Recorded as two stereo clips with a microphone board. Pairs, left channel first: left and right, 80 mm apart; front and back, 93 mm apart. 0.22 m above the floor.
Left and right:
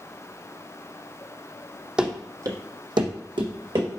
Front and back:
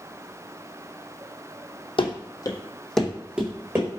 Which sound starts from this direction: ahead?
Running footsteps, at 2.0 s.